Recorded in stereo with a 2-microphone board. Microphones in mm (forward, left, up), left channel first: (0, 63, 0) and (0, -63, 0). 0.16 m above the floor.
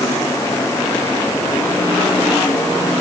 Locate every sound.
Only background noise.